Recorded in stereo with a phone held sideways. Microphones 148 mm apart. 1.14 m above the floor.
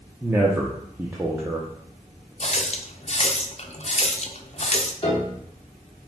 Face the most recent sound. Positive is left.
turn(degrees=35)  # may be behind; listen again after turning